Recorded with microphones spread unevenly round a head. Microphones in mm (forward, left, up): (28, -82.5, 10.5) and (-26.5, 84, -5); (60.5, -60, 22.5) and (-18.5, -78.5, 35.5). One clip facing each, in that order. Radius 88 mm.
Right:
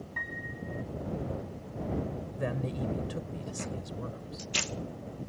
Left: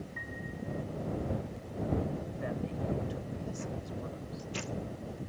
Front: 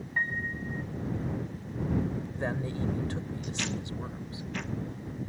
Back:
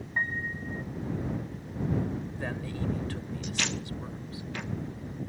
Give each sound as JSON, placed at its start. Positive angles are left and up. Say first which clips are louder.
{"t": 0.2, "sound": "a piano", "louder": "even, even", "azimuth_deg": -90}
{"t": 2.4, "sound": "a man speaking", "louder": "right 6 dB, front 2 dB", "azimuth_deg": -50}